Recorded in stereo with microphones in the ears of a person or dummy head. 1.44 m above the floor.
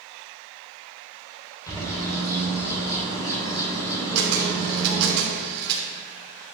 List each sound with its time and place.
1.7 s a bird: 20° left (ahead or behind), 4 m
4.2 s a camera shutter: 60° right (ahead or behind), 3 m